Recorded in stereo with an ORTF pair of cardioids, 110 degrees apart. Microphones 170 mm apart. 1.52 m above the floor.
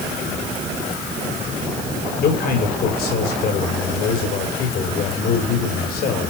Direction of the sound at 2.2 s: 65° left.